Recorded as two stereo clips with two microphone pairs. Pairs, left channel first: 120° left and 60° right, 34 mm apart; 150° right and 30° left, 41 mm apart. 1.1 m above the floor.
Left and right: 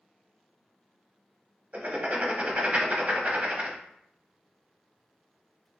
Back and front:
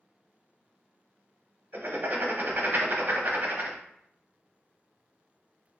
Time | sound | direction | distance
1.7 | writing | 10° right | 0.6 m